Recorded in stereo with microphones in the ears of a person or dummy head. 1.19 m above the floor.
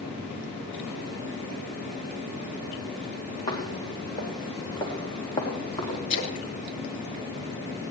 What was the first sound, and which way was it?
Footsteps, 25° left (ahead or behind).